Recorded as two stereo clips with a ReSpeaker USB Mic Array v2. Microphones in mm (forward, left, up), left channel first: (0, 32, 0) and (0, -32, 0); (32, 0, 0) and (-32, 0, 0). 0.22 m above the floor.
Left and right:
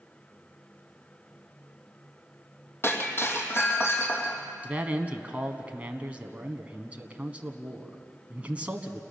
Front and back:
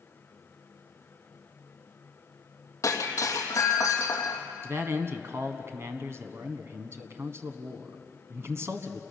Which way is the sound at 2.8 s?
35° left.